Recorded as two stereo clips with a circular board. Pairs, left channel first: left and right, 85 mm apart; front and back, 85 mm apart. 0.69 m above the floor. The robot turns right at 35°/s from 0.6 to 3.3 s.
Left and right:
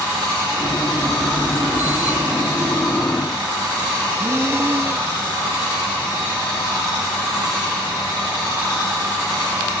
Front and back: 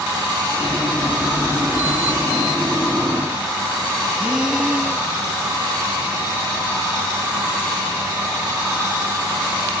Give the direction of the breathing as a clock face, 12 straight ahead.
4 o'clock.